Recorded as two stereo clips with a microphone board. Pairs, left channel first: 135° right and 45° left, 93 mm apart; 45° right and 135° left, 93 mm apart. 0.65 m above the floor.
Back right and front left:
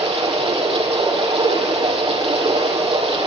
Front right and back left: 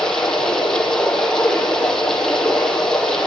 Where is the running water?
40° left, 9.5 m.